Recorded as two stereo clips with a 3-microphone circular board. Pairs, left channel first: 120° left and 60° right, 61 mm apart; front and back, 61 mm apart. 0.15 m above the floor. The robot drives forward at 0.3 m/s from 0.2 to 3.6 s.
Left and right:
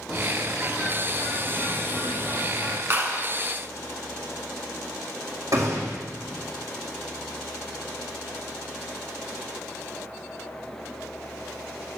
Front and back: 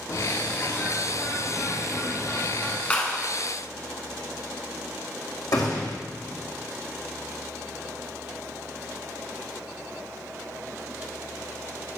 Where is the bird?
35° left, 1.3 m; by 2.8 s 65° left, 0.8 m.